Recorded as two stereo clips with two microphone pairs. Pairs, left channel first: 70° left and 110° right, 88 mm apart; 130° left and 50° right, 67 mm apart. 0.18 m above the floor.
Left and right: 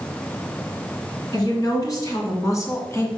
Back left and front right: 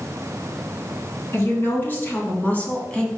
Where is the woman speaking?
95° left, 2.5 m; by 3.1 s 75° left, 1.8 m.